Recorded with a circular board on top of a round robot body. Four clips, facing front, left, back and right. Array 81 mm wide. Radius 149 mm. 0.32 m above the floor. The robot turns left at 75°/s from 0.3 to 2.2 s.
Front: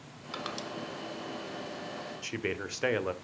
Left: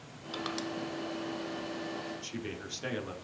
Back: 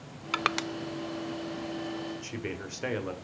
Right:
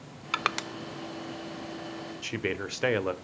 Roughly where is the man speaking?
Ahead right.